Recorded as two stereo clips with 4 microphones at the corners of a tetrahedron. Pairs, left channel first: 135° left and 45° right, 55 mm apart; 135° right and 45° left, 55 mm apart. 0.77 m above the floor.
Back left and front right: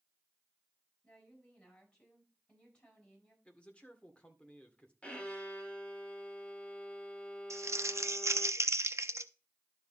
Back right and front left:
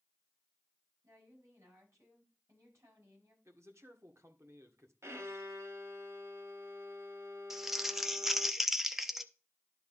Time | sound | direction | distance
1.0 | a woman speaking | 65° left | 6 m
3.5 | a man speaking | 65° left | 1.7 m
5.0 | a violin | 65° left | 1.5 m
7.5 | crumpling | 40° right | 0.6 m